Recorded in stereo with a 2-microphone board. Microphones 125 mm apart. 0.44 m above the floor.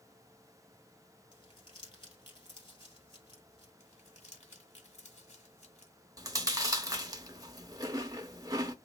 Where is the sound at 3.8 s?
65° left (ahead or behind), 1.2 m.